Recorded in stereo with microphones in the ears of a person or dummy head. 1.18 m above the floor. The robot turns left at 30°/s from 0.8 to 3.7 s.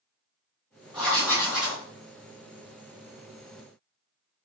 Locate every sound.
0.9 s writing: centre (ahead or behind), 2.5 m; by 1.8 s 25° left (ahead or behind), 2.5 m